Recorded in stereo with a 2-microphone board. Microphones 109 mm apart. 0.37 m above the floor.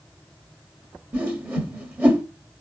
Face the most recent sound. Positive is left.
turn(degrees=-15)  # may be behind; listen again after turning